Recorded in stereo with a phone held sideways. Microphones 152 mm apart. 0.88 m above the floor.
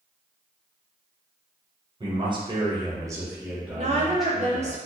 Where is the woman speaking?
45° right (ahead or behind), 0.6 m.